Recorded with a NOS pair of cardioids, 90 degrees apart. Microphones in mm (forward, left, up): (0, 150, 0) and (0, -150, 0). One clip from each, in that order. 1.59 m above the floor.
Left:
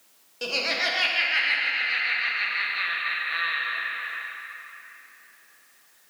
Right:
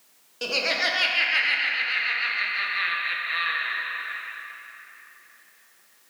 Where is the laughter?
10° right, 1.3 m.